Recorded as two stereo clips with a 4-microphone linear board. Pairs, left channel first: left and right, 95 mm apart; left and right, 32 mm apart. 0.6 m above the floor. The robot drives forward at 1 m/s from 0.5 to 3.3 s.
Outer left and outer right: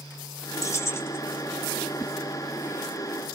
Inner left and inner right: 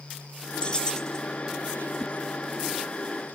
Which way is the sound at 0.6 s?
35° left (ahead or behind).